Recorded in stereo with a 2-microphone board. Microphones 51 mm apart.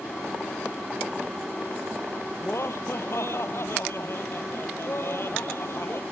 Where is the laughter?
60° left (ahead or behind); by 6.0 s 55° left (ahead or behind).